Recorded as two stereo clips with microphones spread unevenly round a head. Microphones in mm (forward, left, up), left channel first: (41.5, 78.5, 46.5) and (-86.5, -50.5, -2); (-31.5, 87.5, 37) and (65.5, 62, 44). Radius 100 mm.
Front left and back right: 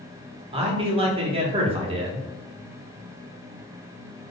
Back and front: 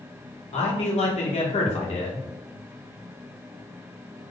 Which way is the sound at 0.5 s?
170° left.